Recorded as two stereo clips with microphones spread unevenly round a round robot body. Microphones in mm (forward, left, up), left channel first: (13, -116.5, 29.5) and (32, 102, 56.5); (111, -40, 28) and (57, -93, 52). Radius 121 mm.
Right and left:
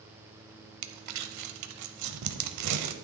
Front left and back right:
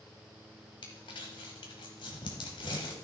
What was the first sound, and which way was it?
Crumpling, 95° left.